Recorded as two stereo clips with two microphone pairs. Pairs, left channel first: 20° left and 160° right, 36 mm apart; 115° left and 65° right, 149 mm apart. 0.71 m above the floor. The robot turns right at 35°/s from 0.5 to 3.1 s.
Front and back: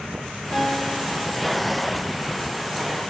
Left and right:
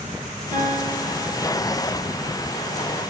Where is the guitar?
35° right, 4 m; by 1.8 s 10° left, 4 m.